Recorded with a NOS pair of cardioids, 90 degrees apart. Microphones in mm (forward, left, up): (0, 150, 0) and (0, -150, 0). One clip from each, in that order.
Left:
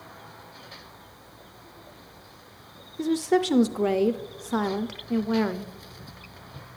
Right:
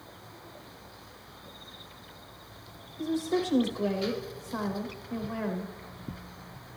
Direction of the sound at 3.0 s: 45° left.